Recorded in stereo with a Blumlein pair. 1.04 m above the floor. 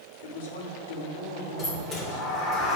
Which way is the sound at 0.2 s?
65° left.